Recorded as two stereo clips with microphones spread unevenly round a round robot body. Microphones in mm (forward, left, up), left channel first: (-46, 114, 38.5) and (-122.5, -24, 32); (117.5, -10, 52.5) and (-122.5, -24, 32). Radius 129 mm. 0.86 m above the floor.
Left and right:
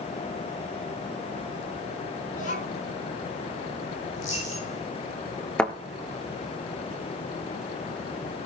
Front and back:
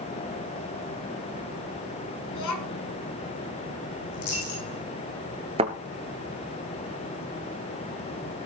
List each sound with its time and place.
2.3 s a child speaking: straight ahead, 5 m
4.1 s a dropped coin: 5° right, 7.5 m
5.6 s a thud: 135° left, 0.9 m